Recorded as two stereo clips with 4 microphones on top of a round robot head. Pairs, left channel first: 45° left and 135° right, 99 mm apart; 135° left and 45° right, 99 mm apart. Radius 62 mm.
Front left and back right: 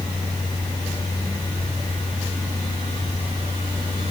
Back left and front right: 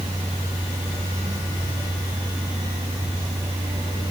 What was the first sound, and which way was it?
Only background noise.